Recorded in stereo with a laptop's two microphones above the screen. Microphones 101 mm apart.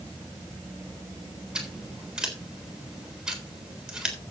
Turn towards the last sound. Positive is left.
turn(degrees=-5)  # may be behind; listen again after turning